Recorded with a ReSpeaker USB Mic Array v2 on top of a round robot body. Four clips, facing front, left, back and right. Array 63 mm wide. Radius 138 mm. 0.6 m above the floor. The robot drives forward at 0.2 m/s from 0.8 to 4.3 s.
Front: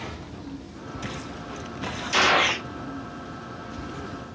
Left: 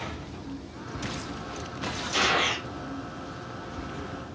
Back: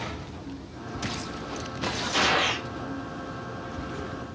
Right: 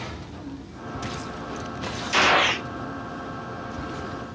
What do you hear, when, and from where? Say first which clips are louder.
2.1 s a gunshot: right 6 dB, front 5 dB; 55° right, 0.6 m; by 2.7 s 65° right, 0.6 m